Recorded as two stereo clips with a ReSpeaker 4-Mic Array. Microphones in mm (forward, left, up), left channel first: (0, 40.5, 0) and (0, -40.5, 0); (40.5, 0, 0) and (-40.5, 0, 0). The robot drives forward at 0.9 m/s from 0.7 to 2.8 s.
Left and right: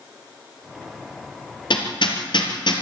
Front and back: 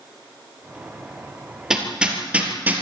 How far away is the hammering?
About 3.5 m.